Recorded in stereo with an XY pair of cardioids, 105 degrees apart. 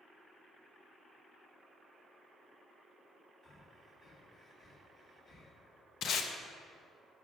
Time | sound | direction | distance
3.4 | breathing | 50° left | 1.4 m
6.0 | tape being pulled | 65° left | 0.6 m